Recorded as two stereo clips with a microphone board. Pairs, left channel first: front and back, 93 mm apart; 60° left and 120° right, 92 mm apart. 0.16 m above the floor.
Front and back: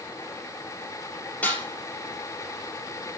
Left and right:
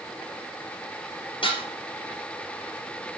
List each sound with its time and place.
1.4 s dishes clattering: 75° left, 3 m